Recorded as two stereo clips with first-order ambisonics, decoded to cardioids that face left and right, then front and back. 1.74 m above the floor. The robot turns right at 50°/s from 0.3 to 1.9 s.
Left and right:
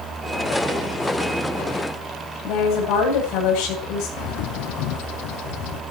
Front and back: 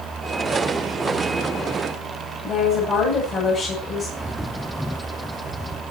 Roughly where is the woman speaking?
Ahead left.